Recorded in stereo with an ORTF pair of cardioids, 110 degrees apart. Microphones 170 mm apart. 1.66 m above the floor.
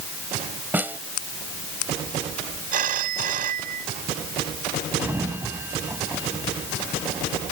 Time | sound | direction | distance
0.7 | a snare drum | 10° right | ?
2.7 | a phone ringing | 55° right | ?
5.0 | a sliding door | 15° right | ?